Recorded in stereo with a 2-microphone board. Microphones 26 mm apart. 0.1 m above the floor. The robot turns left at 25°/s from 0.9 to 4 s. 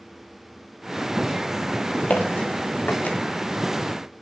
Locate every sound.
2.1 s footsteps: 85° left, 3 m; by 3.2 s 75° left (ahead or behind), 3 m